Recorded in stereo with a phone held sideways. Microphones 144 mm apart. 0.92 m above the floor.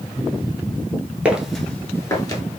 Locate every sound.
1.2 s footsteps: 10° right (ahead or behind), 0.9 m; by 2.4 s 30° left (ahead or behind), 1.0 m